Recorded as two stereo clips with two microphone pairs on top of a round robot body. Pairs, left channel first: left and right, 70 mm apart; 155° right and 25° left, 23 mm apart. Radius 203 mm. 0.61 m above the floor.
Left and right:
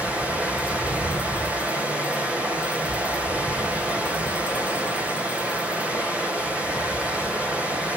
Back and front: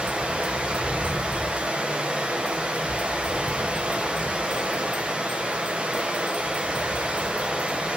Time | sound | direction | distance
0.0 | running water | 15° right | 2.5 m